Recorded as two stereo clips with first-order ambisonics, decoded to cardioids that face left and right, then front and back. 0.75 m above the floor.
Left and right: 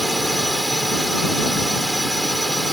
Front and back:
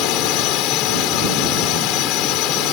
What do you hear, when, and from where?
0.0 s a drone: 5° right